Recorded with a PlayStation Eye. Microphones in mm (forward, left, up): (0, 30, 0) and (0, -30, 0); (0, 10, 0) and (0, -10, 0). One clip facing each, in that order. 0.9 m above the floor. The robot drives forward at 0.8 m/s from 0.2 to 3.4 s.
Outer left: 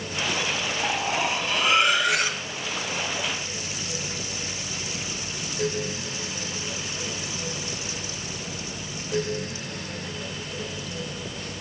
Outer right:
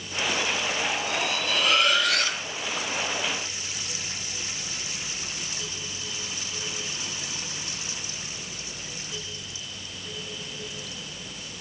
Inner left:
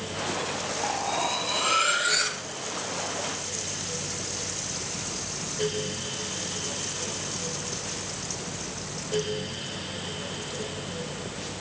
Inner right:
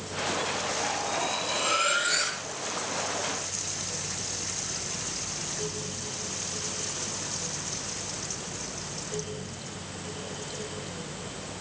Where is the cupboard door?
I don't hear a cupboard door.